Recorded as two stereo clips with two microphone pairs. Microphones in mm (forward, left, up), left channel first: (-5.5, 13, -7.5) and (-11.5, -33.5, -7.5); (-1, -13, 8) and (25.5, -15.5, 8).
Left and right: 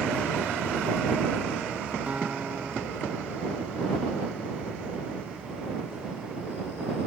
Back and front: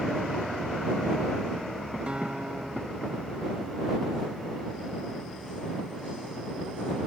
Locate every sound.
2.1 s a guitar: 40° right